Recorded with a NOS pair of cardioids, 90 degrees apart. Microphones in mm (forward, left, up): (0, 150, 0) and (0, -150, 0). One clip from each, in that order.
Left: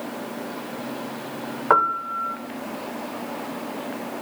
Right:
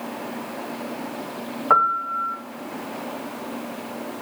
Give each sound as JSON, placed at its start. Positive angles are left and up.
{"t": 1.7, "sound": "a piano", "azimuth_deg": 25, "distance_m": 1.2}